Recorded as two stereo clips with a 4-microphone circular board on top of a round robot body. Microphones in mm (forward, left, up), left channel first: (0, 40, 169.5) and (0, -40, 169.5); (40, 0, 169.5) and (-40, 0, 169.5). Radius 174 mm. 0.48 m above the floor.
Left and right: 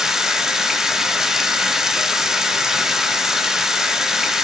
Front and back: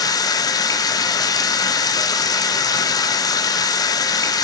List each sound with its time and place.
0.0 s running water: 10° right, 1.2 m